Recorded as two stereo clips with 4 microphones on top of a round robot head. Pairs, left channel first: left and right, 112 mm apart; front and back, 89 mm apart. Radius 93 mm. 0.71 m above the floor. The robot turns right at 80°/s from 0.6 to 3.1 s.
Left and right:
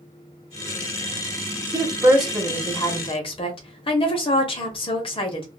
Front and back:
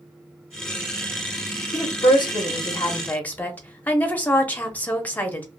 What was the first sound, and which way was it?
A woman speaking, 45° right.